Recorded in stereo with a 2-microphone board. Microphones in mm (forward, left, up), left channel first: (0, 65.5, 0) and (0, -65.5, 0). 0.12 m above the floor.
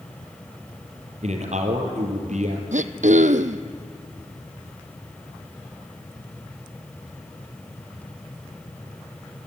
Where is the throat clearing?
75° right (ahead or behind), 0.8 m.